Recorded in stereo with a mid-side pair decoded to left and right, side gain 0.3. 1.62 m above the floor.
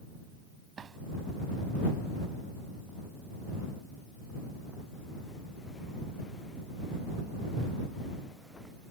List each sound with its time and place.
0.8 s a drawer: 65° right